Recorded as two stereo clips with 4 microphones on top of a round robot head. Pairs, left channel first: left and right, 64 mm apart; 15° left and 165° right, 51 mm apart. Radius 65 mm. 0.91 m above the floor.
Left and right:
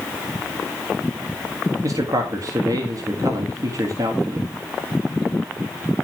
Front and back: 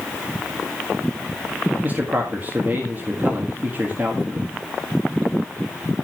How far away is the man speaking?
About 1.9 m.